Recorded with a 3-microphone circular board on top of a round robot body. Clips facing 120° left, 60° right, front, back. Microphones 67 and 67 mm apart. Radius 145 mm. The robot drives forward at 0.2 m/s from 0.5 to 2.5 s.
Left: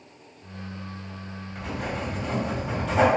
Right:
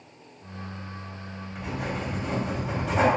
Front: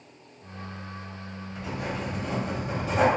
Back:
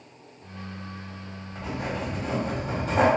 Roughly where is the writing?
Behind right.